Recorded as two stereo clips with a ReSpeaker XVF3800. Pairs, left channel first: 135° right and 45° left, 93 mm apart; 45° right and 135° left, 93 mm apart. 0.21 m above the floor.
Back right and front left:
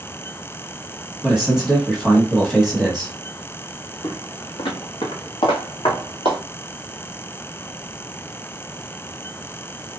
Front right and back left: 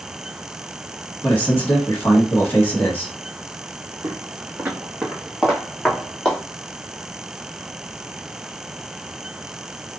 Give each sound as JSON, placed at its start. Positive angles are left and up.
{"t": 1.2, "sound": "a man speaking", "azimuth_deg": -35, "distance_m": 1.2}
{"t": 4.0, "sound": "footsteps", "azimuth_deg": -175, "distance_m": 1.2}